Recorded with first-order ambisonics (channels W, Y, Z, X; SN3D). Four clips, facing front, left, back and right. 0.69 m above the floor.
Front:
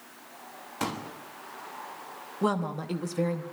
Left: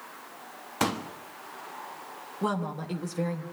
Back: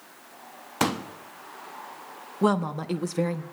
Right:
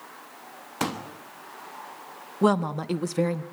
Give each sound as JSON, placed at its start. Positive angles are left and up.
{"t": 0.8, "sound": "a pop", "azimuth_deg": 175, "distance_m": 1.2}
{"t": 2.4, "sound": "a woman speaking", "azimuth_deg": -120, "distance_m": 0.8}